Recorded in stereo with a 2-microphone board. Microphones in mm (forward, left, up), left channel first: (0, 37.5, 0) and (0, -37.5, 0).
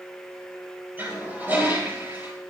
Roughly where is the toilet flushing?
Right.